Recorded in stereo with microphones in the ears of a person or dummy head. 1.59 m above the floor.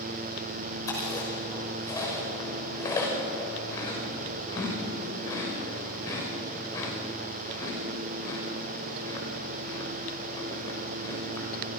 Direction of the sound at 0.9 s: 20° left (ahead or behind).